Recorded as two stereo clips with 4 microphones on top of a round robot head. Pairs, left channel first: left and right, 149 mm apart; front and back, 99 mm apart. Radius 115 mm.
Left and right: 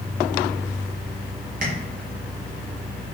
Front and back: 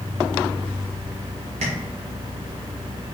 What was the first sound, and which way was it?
Tapping, 135° right.